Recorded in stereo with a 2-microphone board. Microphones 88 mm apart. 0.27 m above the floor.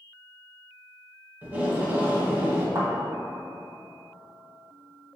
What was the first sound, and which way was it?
Tape being pulled, 20° right (ahead or behind).